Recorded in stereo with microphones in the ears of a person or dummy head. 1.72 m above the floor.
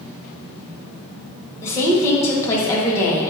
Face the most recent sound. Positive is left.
turn(degrees=20)  # may be behind; listen again after turning